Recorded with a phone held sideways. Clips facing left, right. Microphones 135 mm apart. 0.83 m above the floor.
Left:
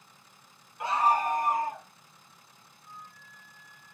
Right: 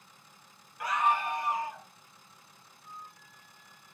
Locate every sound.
0.8 s a scream: 25° left (ahead or behind), 0.5 m; by 1.9 s 50° left (ahead or behind), 1.3 m
2.8 s a flute: 30° right (ahead or behind), 4 m